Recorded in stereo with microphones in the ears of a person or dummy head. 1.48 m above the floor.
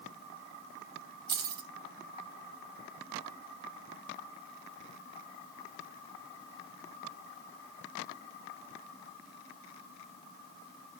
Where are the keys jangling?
25° right (ahead or behind), 1.3 m.